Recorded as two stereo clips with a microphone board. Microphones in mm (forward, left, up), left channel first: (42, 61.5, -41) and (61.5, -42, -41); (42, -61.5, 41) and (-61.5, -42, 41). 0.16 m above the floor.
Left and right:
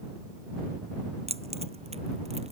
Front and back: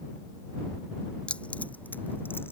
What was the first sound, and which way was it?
Keys jangling, 90° right.